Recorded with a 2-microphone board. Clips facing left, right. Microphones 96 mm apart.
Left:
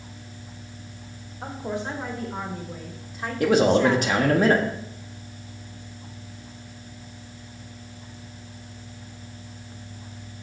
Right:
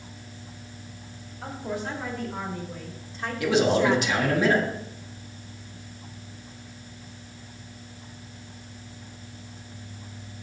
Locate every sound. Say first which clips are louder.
1.4 s a woman speaking: left 2 dB; 25° left (ahead or behind), 3 m; by 4.2 s 15° right (ahead or behind), 1.3 m
3.4 s a man speaking: left 3 dB; 45° left (ahead or behind), 1.6 m